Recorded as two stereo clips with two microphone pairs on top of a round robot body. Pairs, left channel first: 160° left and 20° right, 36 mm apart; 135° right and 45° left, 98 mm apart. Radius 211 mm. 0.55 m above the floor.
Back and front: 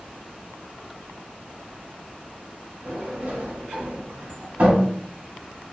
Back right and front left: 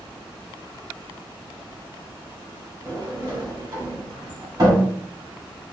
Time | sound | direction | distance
2.9 | a sliding door | 5° left | 1.8 m